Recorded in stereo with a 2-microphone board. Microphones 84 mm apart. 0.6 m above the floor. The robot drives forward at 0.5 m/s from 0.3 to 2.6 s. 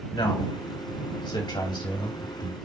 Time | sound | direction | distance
0.1 | a man speaking | 75° left (ahead or behind) | 3 m